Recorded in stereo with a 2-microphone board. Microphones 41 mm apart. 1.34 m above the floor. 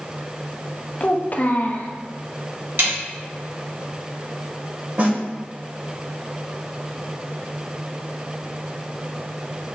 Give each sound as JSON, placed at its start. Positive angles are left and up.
{"t": 1.0, "sound": "a child speaking", "side_deg": 45, "distance_m": 0.5}
{"t": 2.8, "sound": "a snare drum", "side_deg": -75, "distance_m": 1.8}
{"t": 5.0, "sound": "a snare drum", "side_deg": -45, "distance_m": 1.3}